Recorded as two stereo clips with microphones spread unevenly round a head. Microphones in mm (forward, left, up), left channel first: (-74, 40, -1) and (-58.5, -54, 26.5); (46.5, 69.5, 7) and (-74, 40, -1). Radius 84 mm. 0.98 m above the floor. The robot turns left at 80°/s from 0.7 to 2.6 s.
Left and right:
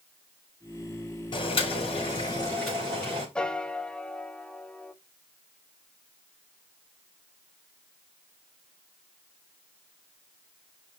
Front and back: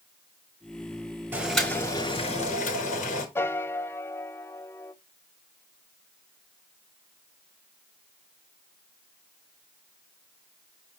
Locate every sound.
1.3 s boiling: 120° left, 4.5 m; by 3.2 s 20° left, 4.5 m
3.4 s a piano: 70° left, 0.6 m